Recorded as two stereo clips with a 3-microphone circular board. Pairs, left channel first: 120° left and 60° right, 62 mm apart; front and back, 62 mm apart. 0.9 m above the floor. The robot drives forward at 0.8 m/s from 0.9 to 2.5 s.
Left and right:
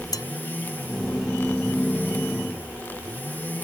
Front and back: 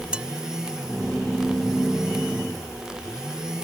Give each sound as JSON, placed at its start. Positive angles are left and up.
{"t": 0.1, "sound": "dishes clattering", "azimuth_deg": 105}